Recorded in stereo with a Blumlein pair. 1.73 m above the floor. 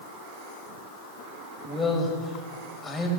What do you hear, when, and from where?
1.6 s a man speaking: 10° left, 3.5 m